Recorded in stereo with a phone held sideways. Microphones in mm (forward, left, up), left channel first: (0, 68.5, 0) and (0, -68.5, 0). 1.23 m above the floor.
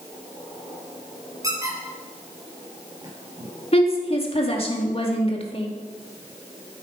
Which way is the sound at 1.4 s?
25° right (ahead or behind).